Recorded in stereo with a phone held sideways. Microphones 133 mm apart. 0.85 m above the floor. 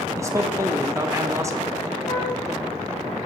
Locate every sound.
0.2 s a man speaking: 20° right (ahead or behind), 1.1 m
2.1 s a flute: 75° left (ahead or behind), 4.5 m